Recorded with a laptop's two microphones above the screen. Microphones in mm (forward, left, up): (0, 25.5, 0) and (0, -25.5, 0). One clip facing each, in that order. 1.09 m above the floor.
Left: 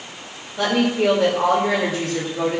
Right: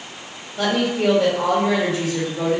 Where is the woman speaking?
5° left (ahead or behind), 2.5 m.